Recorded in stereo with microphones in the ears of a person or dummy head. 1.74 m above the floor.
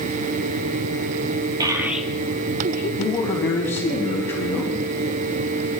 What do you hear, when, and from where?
1.6 s a child speaking: 25° right (ahead or behind), 1.2 m; by 2.9 s 50° left (ahead or behind), 1.3 m
3.0 s a man speaking: 10° left (ahead or behind), 3.5 m